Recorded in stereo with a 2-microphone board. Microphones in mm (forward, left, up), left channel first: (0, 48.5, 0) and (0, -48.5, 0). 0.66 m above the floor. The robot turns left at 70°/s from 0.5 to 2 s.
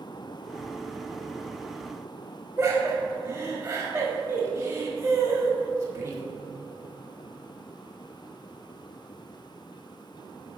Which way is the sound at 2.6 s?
20° right (ahead or behind).